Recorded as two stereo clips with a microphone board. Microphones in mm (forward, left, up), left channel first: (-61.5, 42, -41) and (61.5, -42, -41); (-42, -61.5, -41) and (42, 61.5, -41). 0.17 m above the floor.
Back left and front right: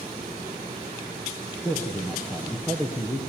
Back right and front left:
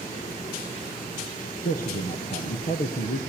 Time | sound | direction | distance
1.6 | a man speaking | 140° right | 4 m